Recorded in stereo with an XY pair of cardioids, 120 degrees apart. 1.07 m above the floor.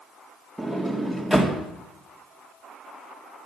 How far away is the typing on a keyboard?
No typing on a keyboard in this recording.